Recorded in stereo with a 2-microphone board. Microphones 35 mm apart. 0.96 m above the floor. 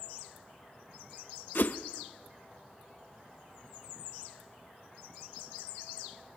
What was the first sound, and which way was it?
A whoosh, 60° left (ahead or behind).